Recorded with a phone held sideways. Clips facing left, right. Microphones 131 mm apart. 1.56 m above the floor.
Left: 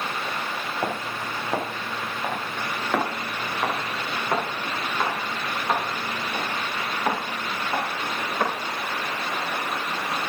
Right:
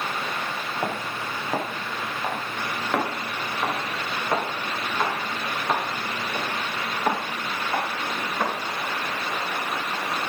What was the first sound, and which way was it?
Footsteps, 5° left (ahead or behind).